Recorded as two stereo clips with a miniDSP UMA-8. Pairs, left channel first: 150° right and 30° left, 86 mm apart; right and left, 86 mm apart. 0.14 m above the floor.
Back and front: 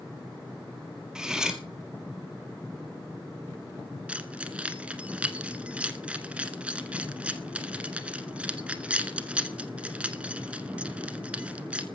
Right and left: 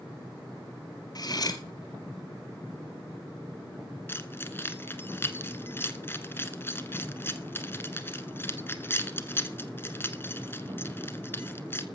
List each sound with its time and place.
1.1 s cutlery clinking: 50° right, 1.8 m
4.1 s keys jangling: 40° right, 1.2 m